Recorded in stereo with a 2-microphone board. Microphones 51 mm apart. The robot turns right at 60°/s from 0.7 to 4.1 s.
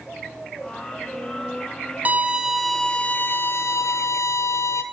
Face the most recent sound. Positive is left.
turn(degrees=90)